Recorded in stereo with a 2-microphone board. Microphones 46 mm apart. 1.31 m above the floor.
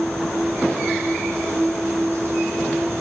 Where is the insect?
60° right (ahead or behind), 5.5 m.